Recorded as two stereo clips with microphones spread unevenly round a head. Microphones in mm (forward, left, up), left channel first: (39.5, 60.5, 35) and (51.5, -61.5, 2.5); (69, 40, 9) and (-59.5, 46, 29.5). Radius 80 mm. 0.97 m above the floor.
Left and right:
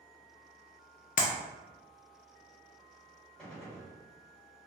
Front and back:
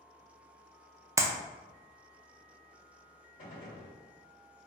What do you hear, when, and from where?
1.2 s a clap: 105° left, 0.5 m
3.4 s a gunshot: 15° left, 1.8 m